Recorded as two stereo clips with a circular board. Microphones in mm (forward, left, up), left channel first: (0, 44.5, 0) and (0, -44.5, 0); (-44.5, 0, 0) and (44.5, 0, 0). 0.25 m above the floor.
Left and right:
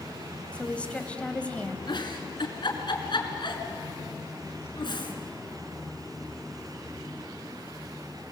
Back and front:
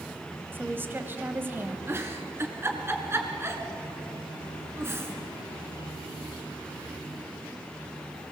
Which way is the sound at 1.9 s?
60° left.